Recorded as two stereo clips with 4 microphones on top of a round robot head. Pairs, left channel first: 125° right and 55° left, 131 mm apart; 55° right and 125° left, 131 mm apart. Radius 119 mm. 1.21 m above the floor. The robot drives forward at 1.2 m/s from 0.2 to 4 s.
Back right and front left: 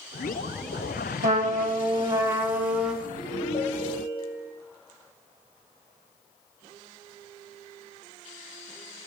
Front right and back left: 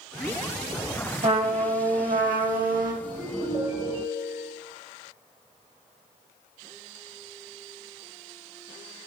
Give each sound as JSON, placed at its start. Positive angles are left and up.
{"t": 1.2, "sound": "a trumpet", "azimuth_deg": 80, "distance_m": 1.8}
{"t": 3.0, "sound": "a ringtone", "azimuth_deg": 180, "distance_m": 3.0}